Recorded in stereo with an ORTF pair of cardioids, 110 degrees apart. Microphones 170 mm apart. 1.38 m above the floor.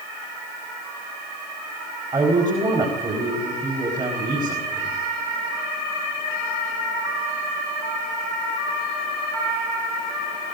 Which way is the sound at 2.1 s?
25° right.